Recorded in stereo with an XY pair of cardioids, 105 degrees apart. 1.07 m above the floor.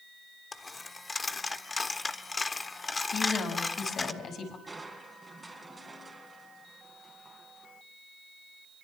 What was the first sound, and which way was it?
A dropped coin, 25° left.